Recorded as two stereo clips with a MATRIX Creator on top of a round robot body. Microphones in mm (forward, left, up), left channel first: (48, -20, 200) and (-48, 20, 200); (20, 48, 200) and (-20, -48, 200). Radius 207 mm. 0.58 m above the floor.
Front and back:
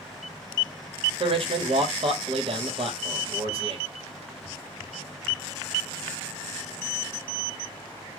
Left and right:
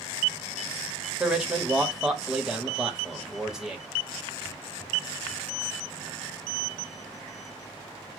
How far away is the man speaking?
About 1.6 m.